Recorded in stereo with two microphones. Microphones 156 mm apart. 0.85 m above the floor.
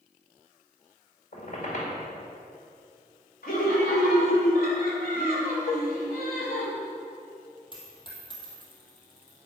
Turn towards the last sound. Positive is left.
turn(degrees=30)  # may be behind; listen again after turning